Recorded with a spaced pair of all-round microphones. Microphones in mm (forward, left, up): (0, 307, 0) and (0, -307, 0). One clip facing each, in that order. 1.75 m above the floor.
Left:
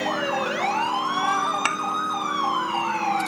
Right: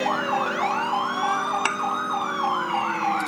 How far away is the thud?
About 1.0 m.